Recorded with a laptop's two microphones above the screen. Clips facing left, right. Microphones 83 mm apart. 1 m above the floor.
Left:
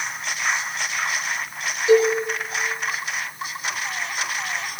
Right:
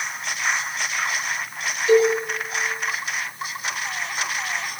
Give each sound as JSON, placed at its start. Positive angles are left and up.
{"t": 1.9, "sound": "a cowbell", "side_deg": 20, "distance_m": 4.5}